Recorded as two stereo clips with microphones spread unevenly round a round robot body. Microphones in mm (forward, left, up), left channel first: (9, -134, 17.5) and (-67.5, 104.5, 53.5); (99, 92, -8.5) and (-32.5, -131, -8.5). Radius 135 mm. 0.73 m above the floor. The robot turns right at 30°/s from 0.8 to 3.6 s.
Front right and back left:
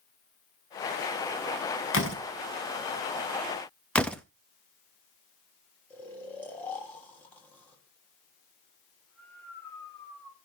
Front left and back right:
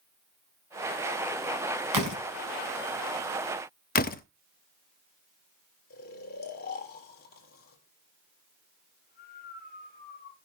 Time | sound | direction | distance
1.9 | a door slam | 115° right | 4.5 m
4.0 | a door slam | 10° left | 0.8 m
5.9 | snoring | 10° left | 3 m